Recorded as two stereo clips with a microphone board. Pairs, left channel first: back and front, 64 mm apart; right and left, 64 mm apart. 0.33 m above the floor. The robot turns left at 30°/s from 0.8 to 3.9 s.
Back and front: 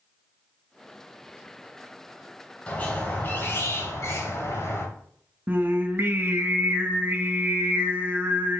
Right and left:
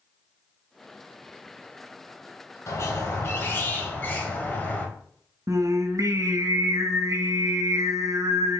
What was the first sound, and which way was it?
A squeak, 115° right.